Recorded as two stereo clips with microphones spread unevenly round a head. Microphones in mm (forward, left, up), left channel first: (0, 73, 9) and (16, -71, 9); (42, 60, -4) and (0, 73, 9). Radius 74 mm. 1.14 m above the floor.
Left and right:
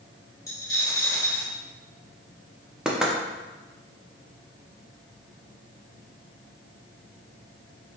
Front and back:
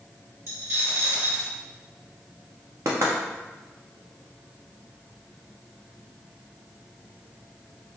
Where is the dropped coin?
165° left, 1.1 m.